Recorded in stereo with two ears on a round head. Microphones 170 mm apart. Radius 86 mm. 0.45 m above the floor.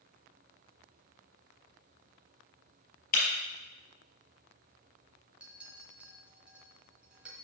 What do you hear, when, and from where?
3.1 s breaking glass: 50° left (ahead or behind), 3.5 m
5.4 s a clink: 5° right (ahead or behind), 1.5 m